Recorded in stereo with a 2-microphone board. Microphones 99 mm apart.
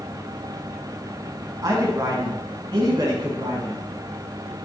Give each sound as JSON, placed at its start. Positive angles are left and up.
{"t": 1.6, "sound": "a man speaking", "side_deg": -45, "distance_m": 2.5}